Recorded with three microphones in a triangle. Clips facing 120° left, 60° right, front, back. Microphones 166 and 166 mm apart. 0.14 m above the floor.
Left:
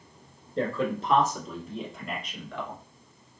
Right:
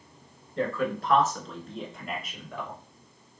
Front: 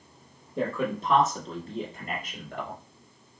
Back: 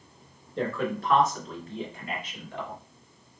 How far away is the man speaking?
About 1.5 m.